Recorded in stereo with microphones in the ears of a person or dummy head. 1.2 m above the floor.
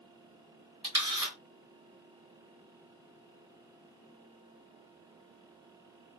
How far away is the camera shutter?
About 1.5 m.